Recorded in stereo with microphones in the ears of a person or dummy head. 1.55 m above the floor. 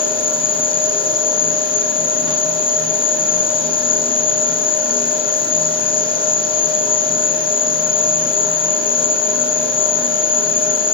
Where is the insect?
30° left (ahead or behind), 0.9 m.